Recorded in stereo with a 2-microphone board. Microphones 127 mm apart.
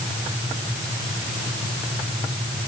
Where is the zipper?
No zipper in this recording.